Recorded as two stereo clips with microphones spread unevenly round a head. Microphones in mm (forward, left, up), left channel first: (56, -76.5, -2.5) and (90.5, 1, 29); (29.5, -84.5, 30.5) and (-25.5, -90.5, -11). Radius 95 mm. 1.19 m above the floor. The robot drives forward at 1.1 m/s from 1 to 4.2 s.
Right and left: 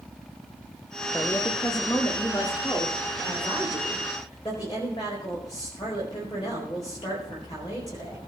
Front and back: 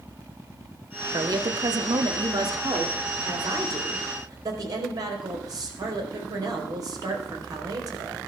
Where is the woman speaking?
170° left, 1.0 m; by 8.2 s straight behind, 4.5 m.